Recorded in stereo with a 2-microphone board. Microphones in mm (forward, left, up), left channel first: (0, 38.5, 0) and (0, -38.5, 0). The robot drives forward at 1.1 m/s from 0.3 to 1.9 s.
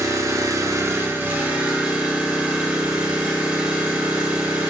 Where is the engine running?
40° right (ahead or behind), 0.7 m; by 4.7 s 15° right (ahead or behind), 1.7 m.